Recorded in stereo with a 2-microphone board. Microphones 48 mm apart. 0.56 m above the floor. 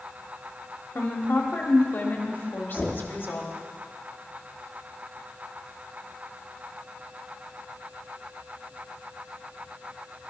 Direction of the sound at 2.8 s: 20° left (ahead or behind).